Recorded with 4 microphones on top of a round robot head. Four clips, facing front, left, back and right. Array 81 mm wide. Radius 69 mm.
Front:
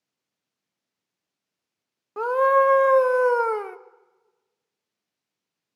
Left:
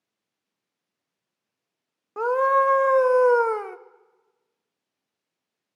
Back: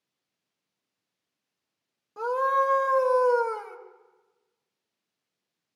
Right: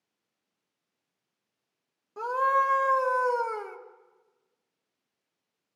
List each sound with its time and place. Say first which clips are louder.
2.2 s a scream: left 5 dB, front 6 dB; 50° left, 0.9 m